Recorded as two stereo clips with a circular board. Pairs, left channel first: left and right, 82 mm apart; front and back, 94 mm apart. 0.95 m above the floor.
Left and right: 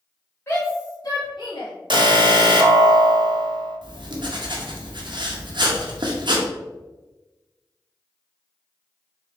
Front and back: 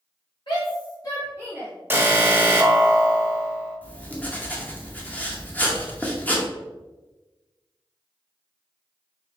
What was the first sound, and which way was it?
A shout, 25° left.